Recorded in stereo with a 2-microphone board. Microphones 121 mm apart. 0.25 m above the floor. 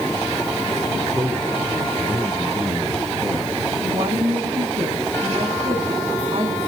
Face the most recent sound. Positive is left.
turn(degrees=-55)  # may be behind; listen again after turning